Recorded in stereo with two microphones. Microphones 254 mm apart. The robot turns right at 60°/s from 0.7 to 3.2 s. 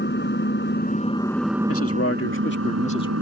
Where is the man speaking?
75° left; by 3.1 s 165° left.